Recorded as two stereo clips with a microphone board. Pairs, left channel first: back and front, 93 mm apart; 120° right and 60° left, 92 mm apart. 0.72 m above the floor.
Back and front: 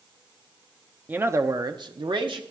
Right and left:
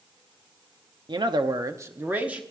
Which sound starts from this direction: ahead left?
A man speaking, at 1.1 s.